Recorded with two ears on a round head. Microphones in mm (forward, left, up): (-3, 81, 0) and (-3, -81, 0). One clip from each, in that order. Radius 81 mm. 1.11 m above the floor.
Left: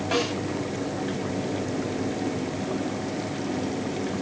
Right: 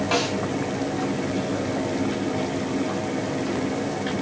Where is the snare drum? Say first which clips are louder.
Right 2 dB; 15° right (ahead or behind), 4.5 m.